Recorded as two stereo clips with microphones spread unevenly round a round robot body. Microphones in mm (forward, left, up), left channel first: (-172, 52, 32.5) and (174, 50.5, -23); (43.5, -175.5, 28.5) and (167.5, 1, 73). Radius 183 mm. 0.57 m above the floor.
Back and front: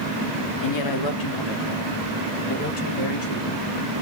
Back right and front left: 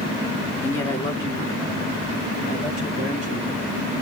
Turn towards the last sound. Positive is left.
turn(degrees=165)